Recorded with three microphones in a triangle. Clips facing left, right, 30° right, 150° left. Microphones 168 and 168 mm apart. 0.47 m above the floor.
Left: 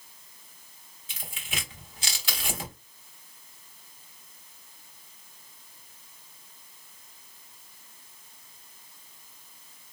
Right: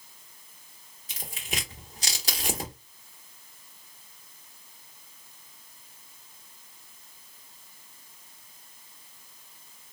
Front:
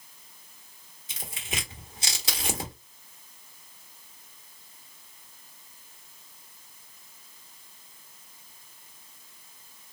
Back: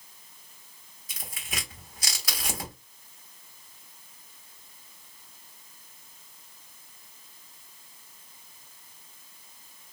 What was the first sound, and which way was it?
Tearing paper, 80° right.